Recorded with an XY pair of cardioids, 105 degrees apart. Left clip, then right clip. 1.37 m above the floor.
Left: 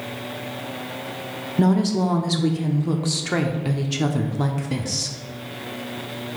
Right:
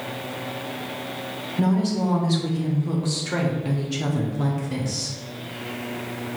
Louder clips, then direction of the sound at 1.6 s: Left 4 dB; 40° left.